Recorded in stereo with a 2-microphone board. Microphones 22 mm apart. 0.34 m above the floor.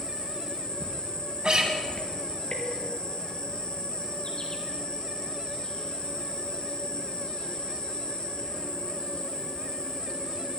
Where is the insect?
40° left (ahead or behind), 3 m.